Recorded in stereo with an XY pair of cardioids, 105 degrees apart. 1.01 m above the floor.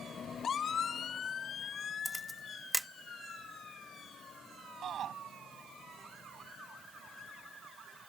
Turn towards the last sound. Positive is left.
turn(degrees=-60)